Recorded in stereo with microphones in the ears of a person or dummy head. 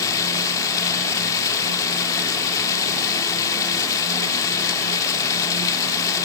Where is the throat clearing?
No throat clearing in this recording.